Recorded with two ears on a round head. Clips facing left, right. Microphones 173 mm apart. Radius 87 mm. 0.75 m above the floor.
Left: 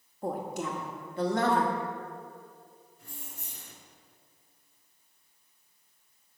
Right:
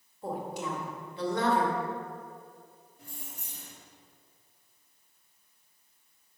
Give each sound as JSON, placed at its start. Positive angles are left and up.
{"t": 0.2, "sound": "a woman speaking", "side_deg": 40, "distance_m": 0.9}
{"t": 3.0, "sound": "keys jangling", "side_deg": -20, "distance_m": 2.0}